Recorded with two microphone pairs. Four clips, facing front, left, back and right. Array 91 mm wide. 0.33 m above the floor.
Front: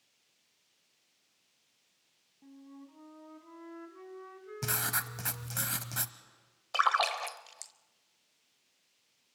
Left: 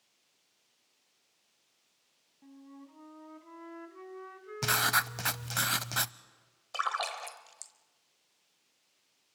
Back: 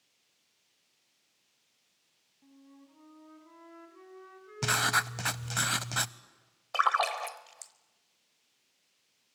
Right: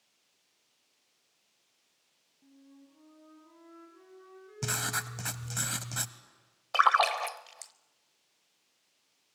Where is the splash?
90° right, 0.7 m.